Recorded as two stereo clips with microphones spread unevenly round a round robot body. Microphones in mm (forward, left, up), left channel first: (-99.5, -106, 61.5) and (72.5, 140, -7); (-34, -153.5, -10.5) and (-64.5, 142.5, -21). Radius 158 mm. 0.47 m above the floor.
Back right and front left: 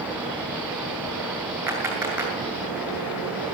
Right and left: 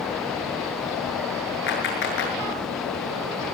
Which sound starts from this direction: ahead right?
A clap, at 1.7 s.